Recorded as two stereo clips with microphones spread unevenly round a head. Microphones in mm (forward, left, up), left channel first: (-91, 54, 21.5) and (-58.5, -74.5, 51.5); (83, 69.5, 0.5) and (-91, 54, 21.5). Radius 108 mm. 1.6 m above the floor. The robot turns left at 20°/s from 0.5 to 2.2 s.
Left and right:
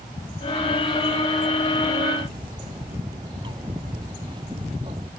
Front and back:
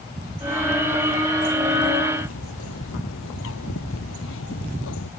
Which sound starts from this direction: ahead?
A bird, at 2.3 s.